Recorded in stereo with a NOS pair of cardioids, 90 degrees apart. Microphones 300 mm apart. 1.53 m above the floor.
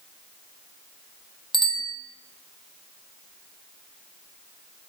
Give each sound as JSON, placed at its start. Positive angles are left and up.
{"t": 1.5, "sound": "a bicycle bell", "azimuth_deg": 15, "distance_m": 2.5}